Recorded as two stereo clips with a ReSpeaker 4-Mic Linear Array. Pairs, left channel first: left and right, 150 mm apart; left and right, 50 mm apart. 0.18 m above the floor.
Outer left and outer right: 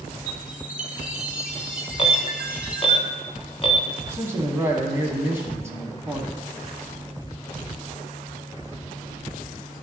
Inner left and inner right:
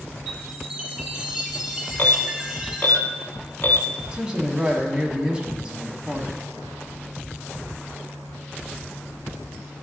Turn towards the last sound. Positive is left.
turn(degrees=-15)  # may be behind; listen again after turning